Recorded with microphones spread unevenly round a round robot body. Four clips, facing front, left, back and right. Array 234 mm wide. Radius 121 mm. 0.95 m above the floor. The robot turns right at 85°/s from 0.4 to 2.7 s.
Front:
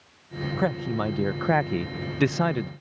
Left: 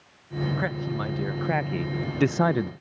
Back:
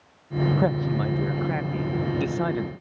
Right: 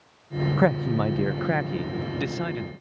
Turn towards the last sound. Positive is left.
turn(degrees=85)